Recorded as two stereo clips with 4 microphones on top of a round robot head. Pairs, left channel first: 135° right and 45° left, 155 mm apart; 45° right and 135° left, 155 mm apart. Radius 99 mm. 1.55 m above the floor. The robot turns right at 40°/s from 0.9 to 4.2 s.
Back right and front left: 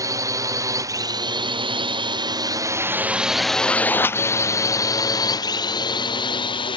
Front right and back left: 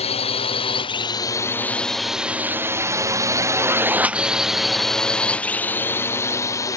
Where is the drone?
15° right; by 6.8 s 100° right.